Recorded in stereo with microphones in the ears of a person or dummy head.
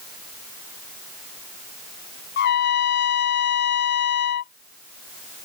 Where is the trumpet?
60° left (ahead or behind).